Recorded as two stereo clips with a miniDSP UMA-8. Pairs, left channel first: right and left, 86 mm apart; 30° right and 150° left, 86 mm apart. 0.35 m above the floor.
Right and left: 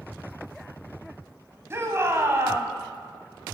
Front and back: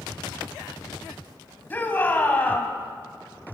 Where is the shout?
35° left, 2.5 m.